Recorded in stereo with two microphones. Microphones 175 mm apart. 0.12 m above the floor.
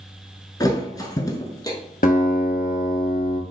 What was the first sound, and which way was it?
A thud, 20° left (ahead or behind).